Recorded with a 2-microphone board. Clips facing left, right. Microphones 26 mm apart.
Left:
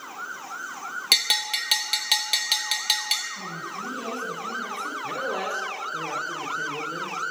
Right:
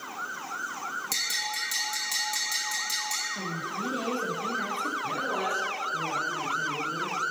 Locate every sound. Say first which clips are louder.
1.1 s a bell: left 10 dB; 65° left (ahead or behind), 0.8 m
3.4 s a woman speaking: right 1 dB; 50° right (ahead or behind), 2.5 m
5.0 s a man speaking: left 1 dB; 35° left (ahead or behind), 1.5 m